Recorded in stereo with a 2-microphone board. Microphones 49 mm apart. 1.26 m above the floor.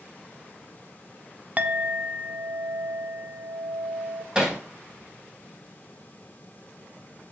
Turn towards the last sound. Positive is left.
turn(degrees=-15)  # may be behind; listen again after turning